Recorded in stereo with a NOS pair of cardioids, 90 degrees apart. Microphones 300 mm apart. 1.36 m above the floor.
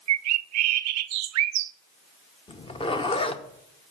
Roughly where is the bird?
Ahead right.